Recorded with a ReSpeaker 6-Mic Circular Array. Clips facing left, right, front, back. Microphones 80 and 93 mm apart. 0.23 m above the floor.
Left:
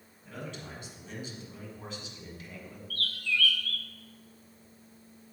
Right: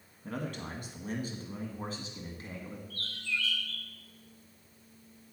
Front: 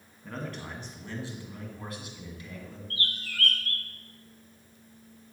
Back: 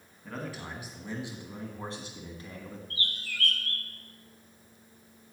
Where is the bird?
30° right, 0.6 m.